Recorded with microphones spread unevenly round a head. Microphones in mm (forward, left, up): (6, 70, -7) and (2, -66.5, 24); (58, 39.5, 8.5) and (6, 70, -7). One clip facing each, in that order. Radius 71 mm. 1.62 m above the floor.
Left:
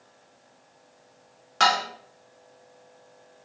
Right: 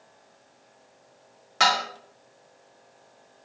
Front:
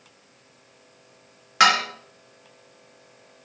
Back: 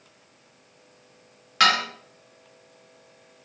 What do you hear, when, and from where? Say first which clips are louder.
1.6 s dishes clattering: left 1 dB, front 3 dB; 30° right, 0.8 m